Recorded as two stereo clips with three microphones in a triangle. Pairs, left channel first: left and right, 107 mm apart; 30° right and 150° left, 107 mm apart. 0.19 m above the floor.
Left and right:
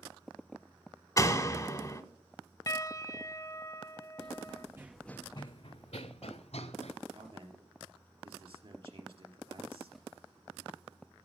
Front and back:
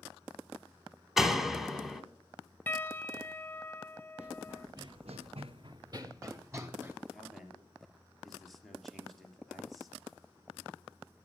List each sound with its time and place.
1.2 s a door slam: 65° left, 0.8 m
2.7 s a piano: 45° left, 0.6 m
4.2 s running footsteps: 135° right, 1.2 m; by 6.9 s 85° left, 2 m
7.1 s a man speaking: 120° right, 3 m